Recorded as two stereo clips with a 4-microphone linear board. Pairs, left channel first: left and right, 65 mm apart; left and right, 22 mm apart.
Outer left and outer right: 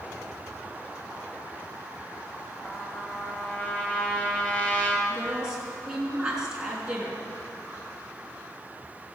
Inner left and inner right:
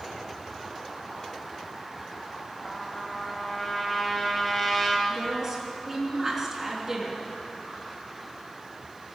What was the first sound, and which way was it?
A trumpet, 20° left (ahead or behind).